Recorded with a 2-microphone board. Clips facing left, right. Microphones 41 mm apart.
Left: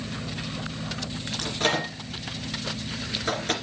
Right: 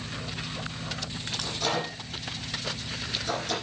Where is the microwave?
45° left (ahead or behind), 2.5 m.